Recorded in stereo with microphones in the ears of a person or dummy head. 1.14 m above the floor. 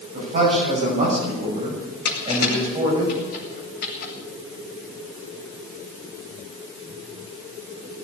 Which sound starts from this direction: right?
A man speaking, at 0.1 s.